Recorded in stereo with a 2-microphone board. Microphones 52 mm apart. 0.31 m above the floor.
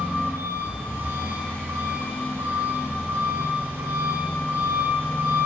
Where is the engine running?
45° right (ahead or behind), 8 m.